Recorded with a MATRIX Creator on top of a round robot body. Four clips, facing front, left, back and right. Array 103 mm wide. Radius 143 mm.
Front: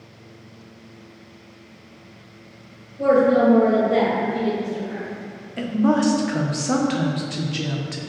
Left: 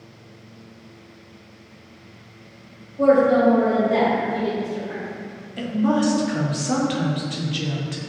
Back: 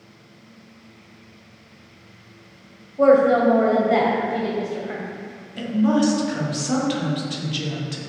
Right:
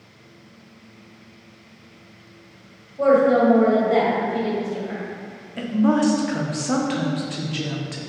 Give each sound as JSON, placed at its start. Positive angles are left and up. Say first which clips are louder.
{"t": 3.0, "sound": "a woman speaking", "louder": "even, back 2 dB", "azimuth_deg": -170, "distance_m": 2.5}
{"t": 5.6, "sound": "a woman speaking", "louder": "right 2 dB, even", "azimuth_deg": -30, "distance_m": 1.5}